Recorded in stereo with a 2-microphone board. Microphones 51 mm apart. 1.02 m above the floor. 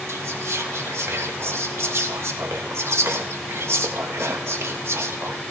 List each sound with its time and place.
0.1 s whispering: 60° right (ahead or behind), 1.2 m